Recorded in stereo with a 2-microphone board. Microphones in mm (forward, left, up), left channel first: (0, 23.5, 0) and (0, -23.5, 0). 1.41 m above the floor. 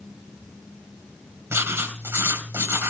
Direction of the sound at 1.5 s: 65° right (ahead or behind).